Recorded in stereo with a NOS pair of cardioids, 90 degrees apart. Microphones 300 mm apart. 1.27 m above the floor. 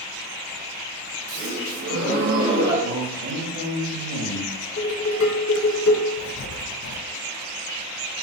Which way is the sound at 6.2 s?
55° left.